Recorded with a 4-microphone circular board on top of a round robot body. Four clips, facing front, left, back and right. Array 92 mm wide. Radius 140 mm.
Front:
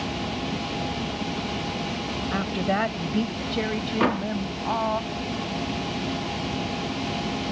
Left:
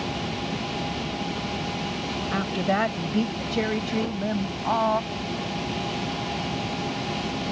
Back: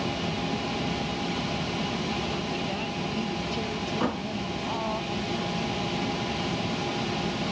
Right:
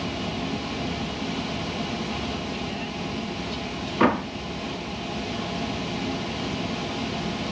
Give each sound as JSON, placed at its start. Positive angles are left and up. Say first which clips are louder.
{"t": 2.3, "sound": "a woman speaking", "louder": "left 6 dB, front 6 dB", "azimuth_deg": 50}
{"t": 4.0, "sound": "a door slam", "louder": "right 7 dB, front 7 dB", "azimuth_deg": -70}